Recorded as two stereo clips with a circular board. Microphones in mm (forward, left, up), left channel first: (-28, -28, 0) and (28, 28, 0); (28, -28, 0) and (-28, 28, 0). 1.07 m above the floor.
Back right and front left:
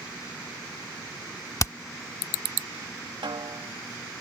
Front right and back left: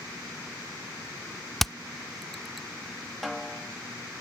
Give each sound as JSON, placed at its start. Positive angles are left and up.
{"t": 1.6, "sound": "hammering", "azimuth_deg": -130}
{"t": 3.2, "sound": "a snare drum", "azimuth_deg": 45}